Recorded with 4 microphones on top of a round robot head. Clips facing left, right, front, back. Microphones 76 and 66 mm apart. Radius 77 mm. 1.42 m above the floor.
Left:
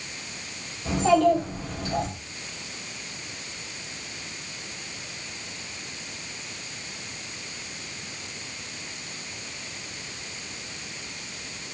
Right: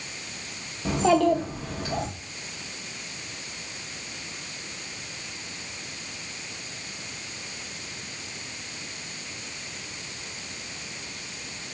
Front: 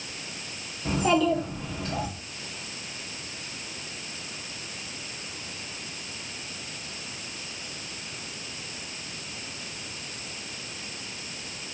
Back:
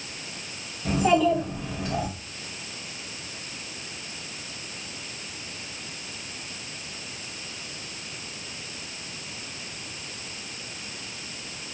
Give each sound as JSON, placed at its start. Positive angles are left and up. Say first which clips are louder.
{"t": 0.8, "sound": "a child speaking", "louder": "left 1 dB, back 2 dB", "azimuth_deg": -95, "distance_m": 0.9}